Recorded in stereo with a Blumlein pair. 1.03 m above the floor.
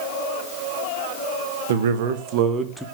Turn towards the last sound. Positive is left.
turn(degrees=5)